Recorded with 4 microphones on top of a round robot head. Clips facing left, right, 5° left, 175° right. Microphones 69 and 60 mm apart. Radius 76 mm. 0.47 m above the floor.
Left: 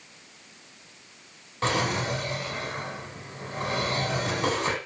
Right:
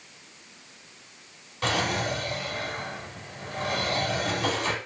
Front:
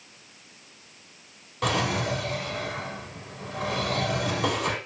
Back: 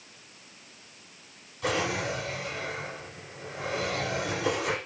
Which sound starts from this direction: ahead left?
A drawer, at 1.6 s.